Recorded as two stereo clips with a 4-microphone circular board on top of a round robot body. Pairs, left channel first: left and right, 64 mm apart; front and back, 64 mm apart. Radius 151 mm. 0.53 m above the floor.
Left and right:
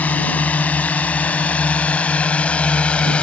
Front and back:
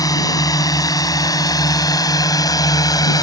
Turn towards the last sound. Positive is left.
turn(degrees=15)